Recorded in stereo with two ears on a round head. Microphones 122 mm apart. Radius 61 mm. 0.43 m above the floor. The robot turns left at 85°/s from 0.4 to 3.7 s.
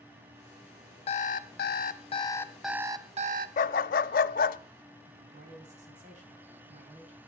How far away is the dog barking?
About 0.6 m.